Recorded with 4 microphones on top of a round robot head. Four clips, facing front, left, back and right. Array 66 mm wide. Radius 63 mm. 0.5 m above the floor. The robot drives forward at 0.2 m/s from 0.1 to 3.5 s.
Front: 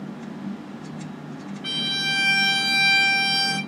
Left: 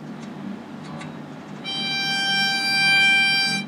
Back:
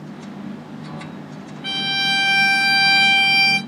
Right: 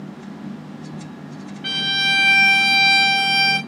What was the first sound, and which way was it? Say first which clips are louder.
A violin: right 6 dB, back 5 dB; 120° right.